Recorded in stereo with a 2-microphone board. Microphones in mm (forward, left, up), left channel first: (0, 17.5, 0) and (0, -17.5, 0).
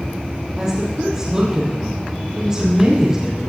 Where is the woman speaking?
20° right (ahead or behind), 4.5 m.